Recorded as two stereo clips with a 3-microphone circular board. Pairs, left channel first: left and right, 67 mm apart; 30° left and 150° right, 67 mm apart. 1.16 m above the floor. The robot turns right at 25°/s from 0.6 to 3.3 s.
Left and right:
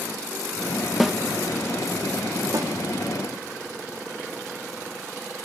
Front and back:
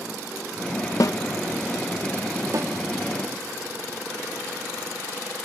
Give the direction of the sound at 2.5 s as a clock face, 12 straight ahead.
4 o'clock.